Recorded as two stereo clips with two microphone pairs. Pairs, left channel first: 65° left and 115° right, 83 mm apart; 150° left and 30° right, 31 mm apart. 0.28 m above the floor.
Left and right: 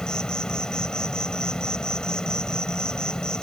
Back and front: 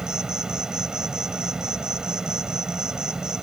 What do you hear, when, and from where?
0.0 s an insect: 5° left